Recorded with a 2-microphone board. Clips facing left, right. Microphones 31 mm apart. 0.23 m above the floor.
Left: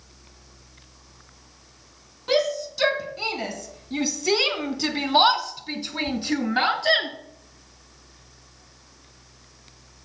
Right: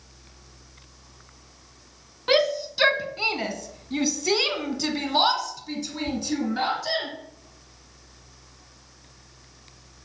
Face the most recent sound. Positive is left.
turn(degrees=45)  # may be behind; listen again after turning